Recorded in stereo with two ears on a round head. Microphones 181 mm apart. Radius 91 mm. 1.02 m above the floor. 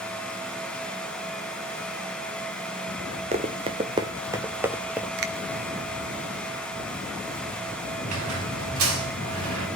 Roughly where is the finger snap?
Right.